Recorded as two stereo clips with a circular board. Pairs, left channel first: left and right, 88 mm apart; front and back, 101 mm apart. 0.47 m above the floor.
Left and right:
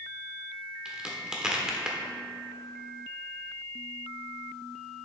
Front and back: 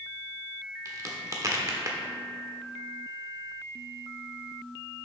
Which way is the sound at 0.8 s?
165° right.